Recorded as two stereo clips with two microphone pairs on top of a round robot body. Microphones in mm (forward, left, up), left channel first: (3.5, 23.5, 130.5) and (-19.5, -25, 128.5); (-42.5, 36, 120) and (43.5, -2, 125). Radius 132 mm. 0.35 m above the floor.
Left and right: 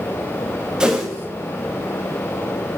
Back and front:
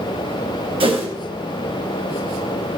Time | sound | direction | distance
0.8 | a whoosh | 40° right | 3 m